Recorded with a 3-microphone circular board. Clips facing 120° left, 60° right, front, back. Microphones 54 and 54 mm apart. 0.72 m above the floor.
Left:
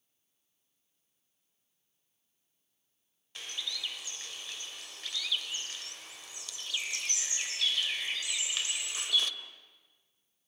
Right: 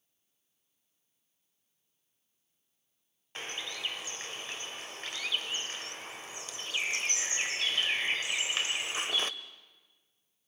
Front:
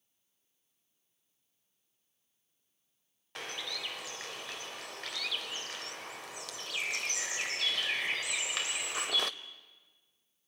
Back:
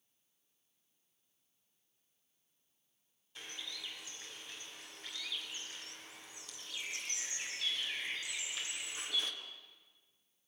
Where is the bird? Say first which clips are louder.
Right 1 dB, front 7 dB; 10° right, 1.0 m.